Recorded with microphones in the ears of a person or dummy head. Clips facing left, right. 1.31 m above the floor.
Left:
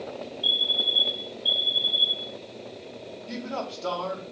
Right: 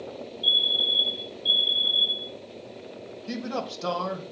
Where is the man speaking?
80° right, 1.3 m.